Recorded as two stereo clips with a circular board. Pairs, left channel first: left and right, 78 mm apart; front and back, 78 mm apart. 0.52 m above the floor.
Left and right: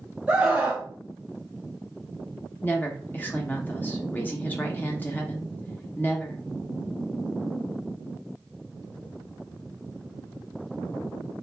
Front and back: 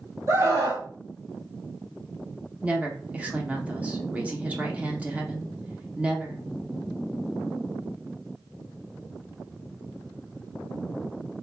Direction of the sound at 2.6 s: 125° left.